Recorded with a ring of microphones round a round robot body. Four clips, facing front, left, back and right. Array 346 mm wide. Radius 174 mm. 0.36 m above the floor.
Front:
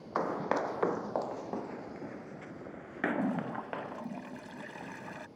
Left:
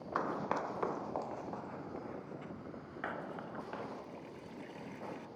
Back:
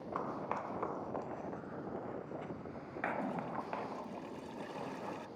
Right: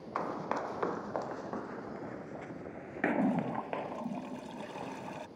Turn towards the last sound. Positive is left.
turn(degrees=-65)